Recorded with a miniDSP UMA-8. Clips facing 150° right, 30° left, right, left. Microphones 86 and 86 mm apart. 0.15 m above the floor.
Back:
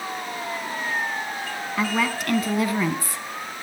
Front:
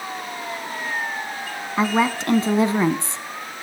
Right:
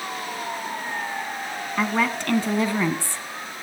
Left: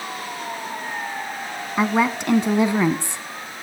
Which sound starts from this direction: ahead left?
A woman speaking, at 1.8 s.